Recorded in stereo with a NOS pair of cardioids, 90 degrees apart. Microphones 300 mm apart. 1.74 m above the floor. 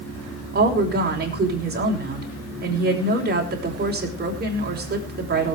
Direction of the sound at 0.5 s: 35° right.